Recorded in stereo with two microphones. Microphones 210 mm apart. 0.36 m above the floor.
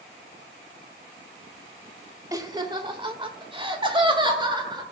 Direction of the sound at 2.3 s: 15° right (ahead or behind).